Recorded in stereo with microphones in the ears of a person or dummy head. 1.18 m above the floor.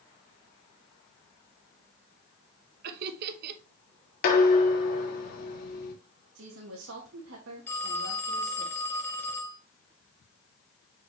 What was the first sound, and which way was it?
Laughter, 55° right (ahead or behind).